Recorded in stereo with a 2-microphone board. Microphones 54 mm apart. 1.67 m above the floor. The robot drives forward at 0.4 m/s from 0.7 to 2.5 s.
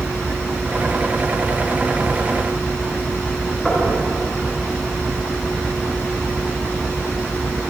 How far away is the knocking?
About 5.5 m.